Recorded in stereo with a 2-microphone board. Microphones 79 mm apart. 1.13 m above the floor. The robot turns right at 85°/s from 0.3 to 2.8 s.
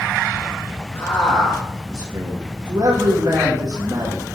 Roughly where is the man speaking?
Behind left.